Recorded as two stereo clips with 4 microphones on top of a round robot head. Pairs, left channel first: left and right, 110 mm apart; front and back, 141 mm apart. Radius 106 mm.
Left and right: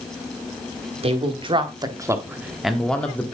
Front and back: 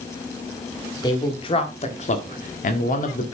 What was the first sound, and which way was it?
A man speaking, 65° right.